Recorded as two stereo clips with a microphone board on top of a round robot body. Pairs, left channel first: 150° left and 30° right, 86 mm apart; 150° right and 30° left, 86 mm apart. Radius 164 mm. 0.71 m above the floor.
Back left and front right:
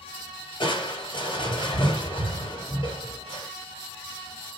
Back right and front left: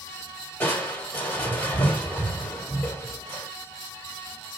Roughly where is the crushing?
Behind left.